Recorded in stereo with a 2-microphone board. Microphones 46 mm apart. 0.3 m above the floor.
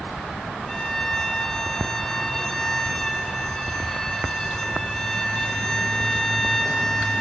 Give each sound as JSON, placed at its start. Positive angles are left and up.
{"t": 0.7, "sound": "a violin", "side_deg": 10, "distance_m": 1.6}